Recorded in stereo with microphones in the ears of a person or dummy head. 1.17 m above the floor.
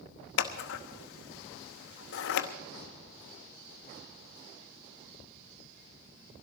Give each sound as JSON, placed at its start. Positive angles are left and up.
{"t": 0.4, "sound": "scissors", "side_deg": 60, "distance_m": 1.0}